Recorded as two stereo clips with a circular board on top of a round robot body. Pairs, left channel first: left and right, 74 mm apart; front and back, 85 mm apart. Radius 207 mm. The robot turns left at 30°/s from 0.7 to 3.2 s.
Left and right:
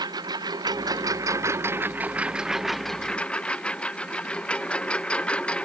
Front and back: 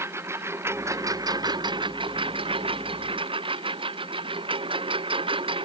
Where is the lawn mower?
120° right; by 5.7 s 165° left.